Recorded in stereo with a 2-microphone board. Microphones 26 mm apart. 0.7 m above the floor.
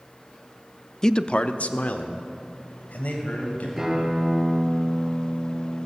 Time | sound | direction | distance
1.0 | a man speaking | 25° left (ahead or behind) | 0.8 m
3.8 | a guitar | 10° right (ahead or behind) | 9 m